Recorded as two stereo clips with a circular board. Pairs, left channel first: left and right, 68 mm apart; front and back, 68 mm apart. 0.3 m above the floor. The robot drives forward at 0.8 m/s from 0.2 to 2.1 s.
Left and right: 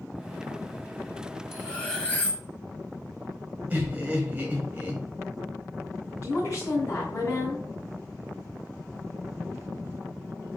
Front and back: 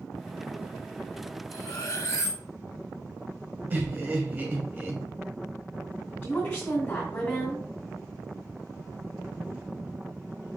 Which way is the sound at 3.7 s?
140° right.